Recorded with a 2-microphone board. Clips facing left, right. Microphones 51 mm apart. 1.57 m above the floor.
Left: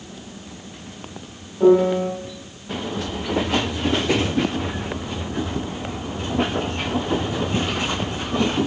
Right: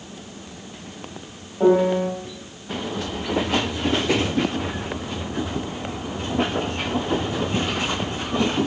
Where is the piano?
25° right (ahead or behind), 1.3 m.